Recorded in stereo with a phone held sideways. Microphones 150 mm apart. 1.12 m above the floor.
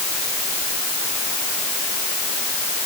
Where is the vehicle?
No vehicle in this recording.